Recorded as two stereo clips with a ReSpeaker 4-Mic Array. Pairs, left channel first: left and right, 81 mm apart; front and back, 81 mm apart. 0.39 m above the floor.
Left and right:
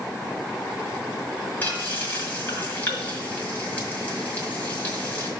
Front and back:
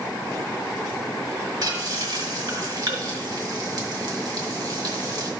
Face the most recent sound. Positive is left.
turn(degrees=155)